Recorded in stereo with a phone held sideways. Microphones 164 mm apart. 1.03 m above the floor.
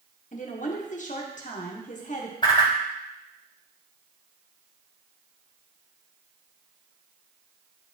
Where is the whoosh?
30° left (ahead or behind), 1.4 m.